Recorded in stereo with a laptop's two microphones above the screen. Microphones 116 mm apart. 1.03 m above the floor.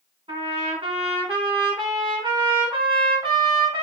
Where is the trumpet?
50° right (ahead or behind), 1.8 m.